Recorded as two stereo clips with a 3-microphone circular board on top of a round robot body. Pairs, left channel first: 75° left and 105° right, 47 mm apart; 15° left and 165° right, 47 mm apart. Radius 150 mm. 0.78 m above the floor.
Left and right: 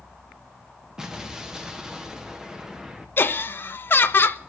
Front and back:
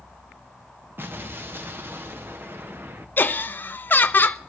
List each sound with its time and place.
1.0 s an explosion: straight behind, 1.2 m
3.2 s laughter: 45° left, 0.9 m